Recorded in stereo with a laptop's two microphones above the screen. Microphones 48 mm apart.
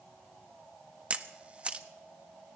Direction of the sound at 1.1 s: 25° right (ahead or behind).